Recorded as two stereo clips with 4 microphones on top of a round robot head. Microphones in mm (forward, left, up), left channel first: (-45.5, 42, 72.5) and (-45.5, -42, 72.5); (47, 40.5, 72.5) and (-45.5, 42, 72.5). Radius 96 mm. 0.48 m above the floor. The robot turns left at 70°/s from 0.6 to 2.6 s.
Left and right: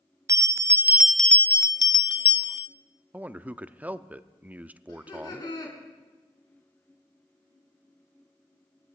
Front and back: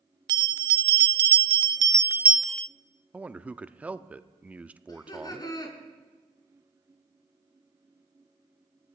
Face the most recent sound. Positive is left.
turn(degrees=45)